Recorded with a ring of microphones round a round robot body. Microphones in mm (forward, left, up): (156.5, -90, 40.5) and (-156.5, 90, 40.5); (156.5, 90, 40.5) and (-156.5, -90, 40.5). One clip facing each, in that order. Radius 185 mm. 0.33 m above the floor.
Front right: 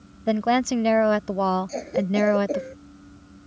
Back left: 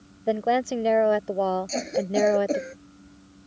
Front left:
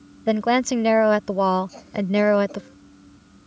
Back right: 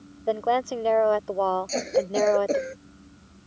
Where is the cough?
150° right.